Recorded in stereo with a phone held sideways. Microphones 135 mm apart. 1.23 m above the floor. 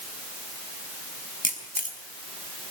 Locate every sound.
1.4 s a camera shutter: 85° left, 5 m